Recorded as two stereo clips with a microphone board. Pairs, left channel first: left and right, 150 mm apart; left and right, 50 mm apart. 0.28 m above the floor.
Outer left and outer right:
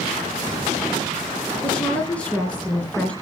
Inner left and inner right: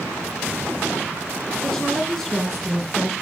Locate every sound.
1.6 s a woman speaking: 10° left (ahead or behind), 3 m